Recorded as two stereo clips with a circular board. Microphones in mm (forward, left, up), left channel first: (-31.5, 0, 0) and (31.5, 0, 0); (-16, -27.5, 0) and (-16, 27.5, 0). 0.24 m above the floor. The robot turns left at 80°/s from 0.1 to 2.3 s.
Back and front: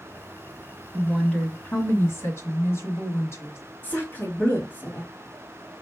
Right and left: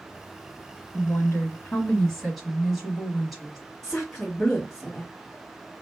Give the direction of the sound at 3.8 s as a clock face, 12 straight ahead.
6 o'clock.